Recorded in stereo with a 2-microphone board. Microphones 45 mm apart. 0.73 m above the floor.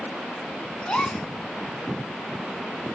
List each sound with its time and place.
0.8 s a gasp: 20° left (ahead or behind), 1.8 m